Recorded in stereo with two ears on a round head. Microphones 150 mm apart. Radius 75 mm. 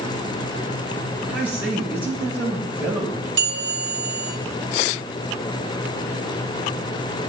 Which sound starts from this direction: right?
A bell, at 3.4 s.